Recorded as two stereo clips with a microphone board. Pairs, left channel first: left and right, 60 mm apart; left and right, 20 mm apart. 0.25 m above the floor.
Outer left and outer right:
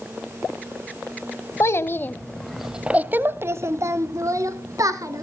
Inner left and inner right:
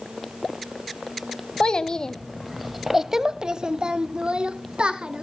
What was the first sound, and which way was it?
A child speaking, 50° left (ahead or behind).